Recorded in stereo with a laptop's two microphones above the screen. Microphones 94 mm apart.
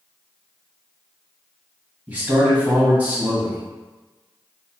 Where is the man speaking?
25° right (ahead or behind), 1.2 m.